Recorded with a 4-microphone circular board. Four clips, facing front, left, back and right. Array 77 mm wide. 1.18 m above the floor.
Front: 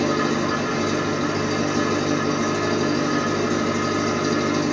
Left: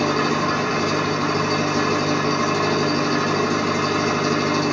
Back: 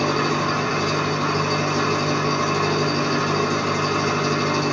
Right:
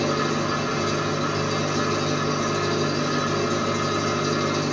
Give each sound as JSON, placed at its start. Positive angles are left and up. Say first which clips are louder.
{"t": 0.0, "sound": "an engine running", "louder": "left 3 dB, even", "azimuth_deg": 135, "distance_m": 1.3}